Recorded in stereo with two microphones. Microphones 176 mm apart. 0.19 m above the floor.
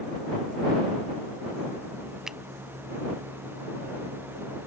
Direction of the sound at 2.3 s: 5° right (ahead or behind).